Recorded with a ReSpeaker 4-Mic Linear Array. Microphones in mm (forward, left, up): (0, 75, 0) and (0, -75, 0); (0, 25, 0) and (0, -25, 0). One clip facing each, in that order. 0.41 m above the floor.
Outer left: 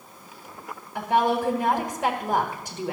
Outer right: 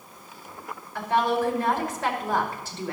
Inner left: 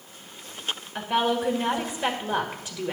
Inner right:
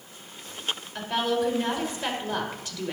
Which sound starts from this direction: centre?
A woman speaking, at 0.9 s.